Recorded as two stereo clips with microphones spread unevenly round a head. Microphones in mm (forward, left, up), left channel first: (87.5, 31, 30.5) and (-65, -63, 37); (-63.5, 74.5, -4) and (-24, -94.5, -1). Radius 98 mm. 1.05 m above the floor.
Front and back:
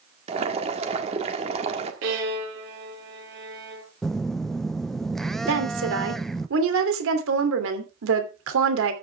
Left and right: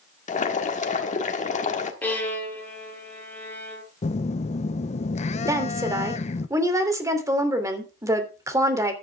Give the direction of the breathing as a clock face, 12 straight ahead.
No breathing in this recording.